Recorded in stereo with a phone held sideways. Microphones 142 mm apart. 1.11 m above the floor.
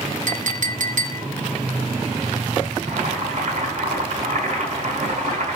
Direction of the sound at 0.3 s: 70° right (ahead or behind).